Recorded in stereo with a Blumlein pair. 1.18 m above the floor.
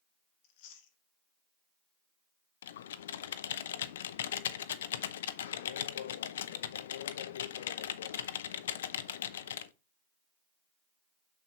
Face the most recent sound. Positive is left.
turn(degrees=60)